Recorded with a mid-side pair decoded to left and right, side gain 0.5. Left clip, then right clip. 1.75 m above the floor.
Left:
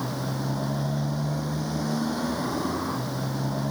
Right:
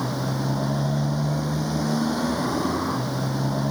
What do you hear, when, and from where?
0.0 s a motorcycle: 25° right